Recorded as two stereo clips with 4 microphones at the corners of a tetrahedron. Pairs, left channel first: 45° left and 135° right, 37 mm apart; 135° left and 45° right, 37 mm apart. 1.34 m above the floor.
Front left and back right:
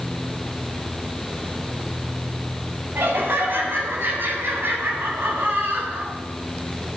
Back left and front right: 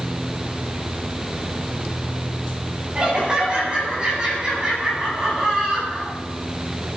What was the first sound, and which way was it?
Laughter, 110° right.